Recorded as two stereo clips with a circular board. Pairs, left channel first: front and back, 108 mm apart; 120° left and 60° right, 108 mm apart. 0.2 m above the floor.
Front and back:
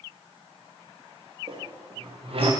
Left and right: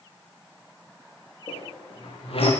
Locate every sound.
1.5 s a squeak: 150° left, 4.5 m